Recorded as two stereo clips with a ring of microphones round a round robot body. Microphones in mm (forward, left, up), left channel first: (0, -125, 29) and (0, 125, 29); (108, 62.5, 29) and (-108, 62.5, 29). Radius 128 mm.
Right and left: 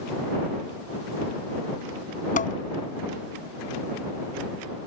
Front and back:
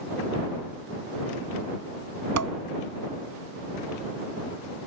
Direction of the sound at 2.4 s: 150° right.